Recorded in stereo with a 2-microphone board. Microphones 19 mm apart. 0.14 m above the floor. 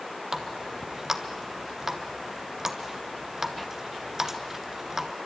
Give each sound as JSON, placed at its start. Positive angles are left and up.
{"t": 0.3, "sound": "a running tap", "side_deg": -20, "distance_m": 1.5}